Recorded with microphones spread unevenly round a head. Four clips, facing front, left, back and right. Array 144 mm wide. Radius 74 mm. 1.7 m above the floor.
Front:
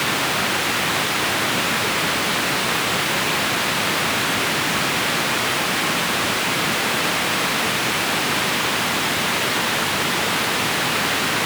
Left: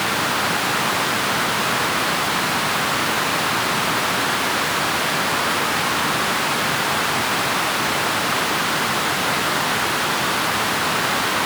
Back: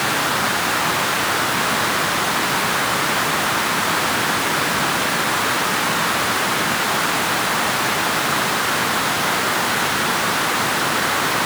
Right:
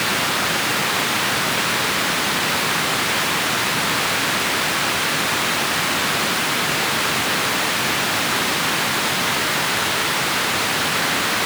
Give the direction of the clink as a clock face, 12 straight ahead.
No clink in this recording.